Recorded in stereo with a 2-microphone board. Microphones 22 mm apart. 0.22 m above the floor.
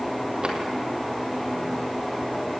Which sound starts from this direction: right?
A drawer, at 0.4 s.